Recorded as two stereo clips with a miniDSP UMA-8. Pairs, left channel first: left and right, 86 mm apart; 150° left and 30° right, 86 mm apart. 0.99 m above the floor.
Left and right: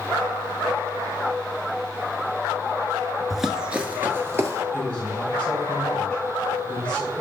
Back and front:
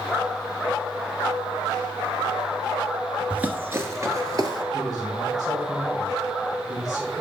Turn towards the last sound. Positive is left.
turn(degrees=25)